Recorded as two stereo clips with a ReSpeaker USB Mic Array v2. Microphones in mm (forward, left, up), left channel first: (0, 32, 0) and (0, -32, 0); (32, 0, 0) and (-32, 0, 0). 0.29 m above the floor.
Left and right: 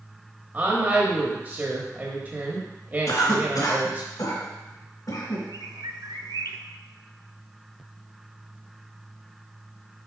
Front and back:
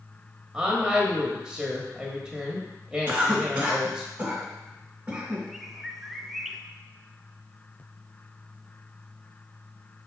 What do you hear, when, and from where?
0.5 s a woman speaking: 115° right, 1.1 m
3.1 s a cough: 105° left, 2.5 m
5.5 s a bird: 95° right, 0.6 m